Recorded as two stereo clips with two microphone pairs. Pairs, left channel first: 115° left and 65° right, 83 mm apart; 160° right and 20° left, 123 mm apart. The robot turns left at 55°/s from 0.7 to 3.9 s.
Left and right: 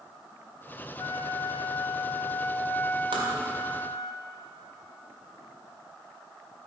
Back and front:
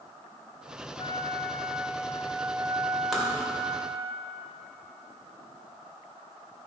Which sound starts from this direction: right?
Tapping, at 3.1 s.